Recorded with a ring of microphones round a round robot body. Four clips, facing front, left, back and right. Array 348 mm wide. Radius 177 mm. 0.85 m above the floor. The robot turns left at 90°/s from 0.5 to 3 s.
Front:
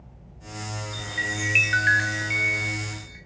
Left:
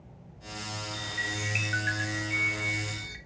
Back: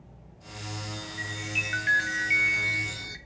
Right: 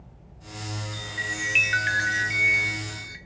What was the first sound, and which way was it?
A chime, 20° left.